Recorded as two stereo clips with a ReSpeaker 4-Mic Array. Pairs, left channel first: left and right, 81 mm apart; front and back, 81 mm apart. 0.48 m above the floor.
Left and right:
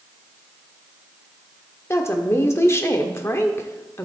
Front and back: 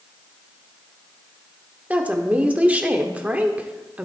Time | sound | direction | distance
1.9 | a woman speaking | 120° left | 1.0 m